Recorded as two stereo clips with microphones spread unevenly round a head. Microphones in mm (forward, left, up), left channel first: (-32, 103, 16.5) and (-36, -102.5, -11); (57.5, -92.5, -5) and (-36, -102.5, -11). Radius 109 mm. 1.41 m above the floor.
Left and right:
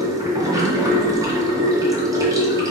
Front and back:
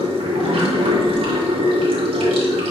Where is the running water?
165° right, 2 m.